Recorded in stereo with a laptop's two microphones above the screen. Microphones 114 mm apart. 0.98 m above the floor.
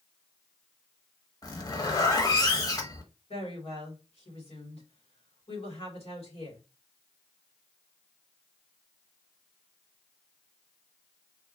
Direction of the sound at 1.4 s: 35° left (ahead or behind).